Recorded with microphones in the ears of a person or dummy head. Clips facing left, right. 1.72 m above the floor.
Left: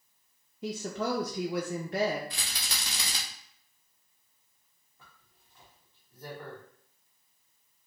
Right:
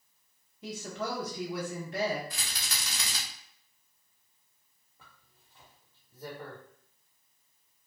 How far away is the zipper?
About 1.1 m.